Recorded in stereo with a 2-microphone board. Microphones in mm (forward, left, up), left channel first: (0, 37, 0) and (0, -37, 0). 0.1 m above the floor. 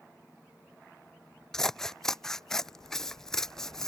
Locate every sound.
1.5 s scissors: 5° left (ahead or behind)